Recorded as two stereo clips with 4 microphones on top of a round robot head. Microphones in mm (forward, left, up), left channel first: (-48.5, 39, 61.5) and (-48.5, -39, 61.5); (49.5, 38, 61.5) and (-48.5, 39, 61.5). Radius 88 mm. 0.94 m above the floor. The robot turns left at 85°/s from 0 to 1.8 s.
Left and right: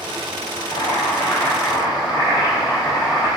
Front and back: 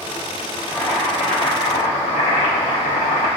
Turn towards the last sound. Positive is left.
turn(degrees=-10)